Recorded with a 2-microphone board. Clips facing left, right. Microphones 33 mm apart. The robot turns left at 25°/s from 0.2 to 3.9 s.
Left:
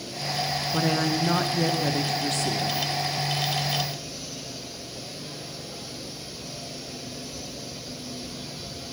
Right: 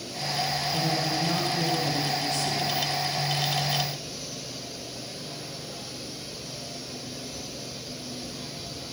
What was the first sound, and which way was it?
A woman speaking, 95° left.